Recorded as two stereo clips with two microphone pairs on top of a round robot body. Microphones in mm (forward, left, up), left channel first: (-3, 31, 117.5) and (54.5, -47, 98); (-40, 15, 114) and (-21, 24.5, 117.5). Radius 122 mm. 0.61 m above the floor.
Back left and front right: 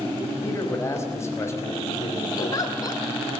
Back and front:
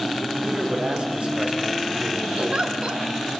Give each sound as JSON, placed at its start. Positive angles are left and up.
{"t": 0.4, "sound": "a man speaking", "azimuth_deg": 65, "distance_m": 5.0}
{"t": 2.4, "sound": "a giggle", "azimuth_deg": 75, "distance_m": 2.0}